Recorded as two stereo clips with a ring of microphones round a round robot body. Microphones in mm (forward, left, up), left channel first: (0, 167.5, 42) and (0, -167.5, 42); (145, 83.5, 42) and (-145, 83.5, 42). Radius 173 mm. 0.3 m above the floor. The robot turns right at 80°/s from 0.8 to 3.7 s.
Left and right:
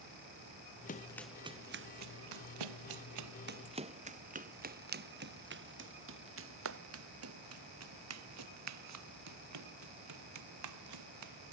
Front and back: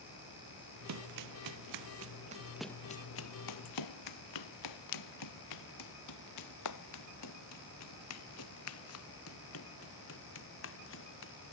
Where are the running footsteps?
155° left; by 11.5 s 55° right.